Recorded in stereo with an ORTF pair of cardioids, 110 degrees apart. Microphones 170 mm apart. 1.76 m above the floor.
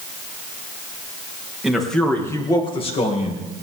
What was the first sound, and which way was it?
A man speaking, 5° right.